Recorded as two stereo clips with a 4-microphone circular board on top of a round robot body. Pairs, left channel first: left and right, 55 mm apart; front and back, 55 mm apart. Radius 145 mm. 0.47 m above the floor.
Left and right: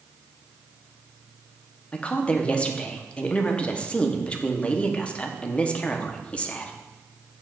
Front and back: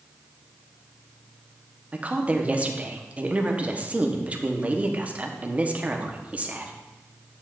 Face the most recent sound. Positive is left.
turn(degrees=140)